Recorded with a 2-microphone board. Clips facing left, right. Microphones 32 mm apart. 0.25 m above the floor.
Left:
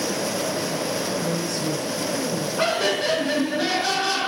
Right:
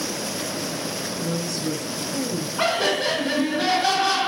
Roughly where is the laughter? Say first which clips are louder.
Right 1 dB; centre.